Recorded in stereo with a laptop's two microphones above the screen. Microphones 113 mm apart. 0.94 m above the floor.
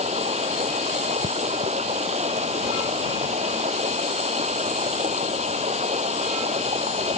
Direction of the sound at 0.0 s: 75° right (ahead or behind).